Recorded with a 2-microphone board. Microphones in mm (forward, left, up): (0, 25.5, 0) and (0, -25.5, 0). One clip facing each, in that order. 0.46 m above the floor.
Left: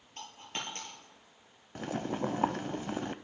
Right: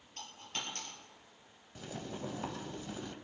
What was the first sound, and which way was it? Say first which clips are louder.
A dropped coin: left 2 dB; 30° left (ahead or behind).